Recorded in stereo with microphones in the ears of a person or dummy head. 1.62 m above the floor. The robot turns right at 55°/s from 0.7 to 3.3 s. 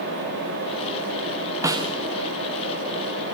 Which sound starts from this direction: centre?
A snare drum, at 1.6 s.